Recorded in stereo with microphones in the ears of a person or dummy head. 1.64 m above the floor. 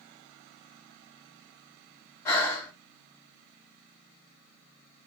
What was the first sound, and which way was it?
Breathing, 20° left (ahead or behind).